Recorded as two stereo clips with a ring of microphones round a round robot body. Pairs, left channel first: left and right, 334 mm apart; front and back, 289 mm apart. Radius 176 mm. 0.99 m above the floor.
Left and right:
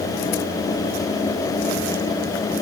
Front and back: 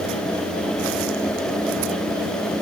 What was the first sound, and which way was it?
Only background noise.